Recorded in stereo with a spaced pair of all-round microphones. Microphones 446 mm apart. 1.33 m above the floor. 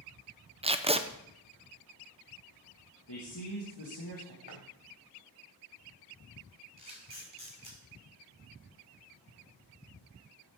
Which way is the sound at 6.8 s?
85° left.